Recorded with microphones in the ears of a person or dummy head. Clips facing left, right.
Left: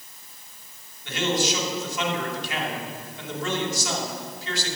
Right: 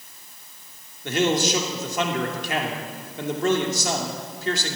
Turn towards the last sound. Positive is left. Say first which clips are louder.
# right 4 dB
turn(degrees=-45)  # may be behind; listen again after turning